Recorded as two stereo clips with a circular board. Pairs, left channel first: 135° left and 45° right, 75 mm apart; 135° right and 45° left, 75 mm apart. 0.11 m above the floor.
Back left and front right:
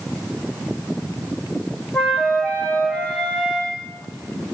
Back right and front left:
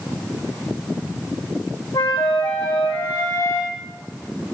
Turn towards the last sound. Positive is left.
turn(degrees=-155)